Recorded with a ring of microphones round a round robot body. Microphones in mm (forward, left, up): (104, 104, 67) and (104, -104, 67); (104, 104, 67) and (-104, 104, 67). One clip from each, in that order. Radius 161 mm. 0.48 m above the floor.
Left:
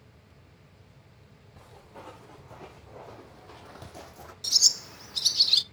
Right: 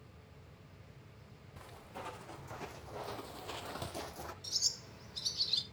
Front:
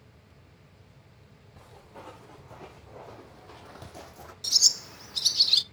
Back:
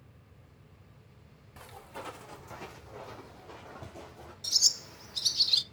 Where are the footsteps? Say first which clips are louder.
Even, back 4 dB; 150° right, 2.5 m; by 4.3 s 20° right, 1.3 m.